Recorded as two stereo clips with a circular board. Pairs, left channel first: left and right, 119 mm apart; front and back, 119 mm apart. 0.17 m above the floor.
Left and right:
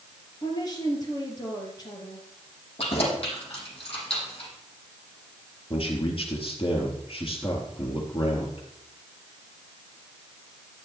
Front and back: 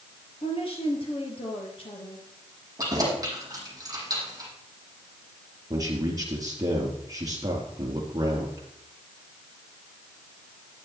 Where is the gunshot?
No gunshot in this recording.